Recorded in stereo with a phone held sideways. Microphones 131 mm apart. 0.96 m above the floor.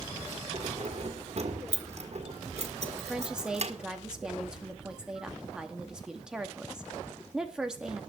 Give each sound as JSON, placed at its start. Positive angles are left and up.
{"t": 0.5, "sound": "keys jangling", "side_deg": -55, "distance_m": 1.6}
{"t": 3.0, "sound": "a woman speaking", "side_deg": -5, "distance_m": 1.9}